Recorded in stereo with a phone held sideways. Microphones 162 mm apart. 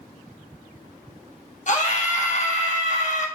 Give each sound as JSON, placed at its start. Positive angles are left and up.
{"t": 1.7, "sound": "a scream", "side_deg": 50, "distance_m": 1.6}